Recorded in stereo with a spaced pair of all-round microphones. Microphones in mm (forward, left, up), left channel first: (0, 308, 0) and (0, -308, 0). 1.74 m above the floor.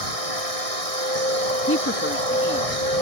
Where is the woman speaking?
20° left (ahead or behind).